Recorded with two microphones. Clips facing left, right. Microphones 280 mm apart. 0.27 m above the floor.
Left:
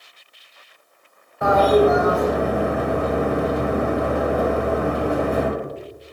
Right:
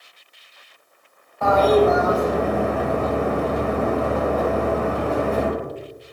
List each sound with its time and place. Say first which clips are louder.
1.4 s a toilet flushing: left 1 dB; 15° left (ahead or behind), 0.6 m